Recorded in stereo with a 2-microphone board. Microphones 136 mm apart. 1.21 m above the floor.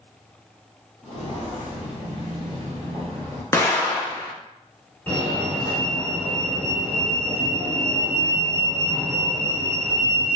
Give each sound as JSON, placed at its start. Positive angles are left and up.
{"t": 1.0, "sound": "footsteps", "side_deg": 50, "distance_m": 1.7}
{"t": 3.5, "sound": "an explosion", "side_deg": 20, "distance_m": 0.6}
{"t": 5.1, "sound": "a fire alarm", "side_deg": 15, "distance_m": 1.0}